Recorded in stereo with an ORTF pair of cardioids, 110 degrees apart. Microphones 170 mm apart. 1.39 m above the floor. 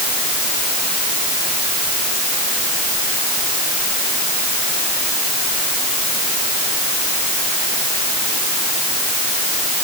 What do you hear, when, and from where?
Only background noise.